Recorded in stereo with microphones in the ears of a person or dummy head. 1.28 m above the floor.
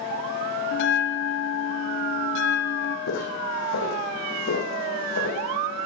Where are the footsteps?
65° left (ahead or behind), 4.5 m; by 5.4 s 75° left (ahead or behind), 5.5 m.